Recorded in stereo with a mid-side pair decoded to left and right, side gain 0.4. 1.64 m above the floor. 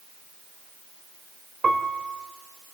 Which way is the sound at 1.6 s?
35° right.